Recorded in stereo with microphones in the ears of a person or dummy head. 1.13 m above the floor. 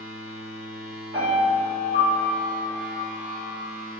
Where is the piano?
50° right (ahead or behind), 1.4 m.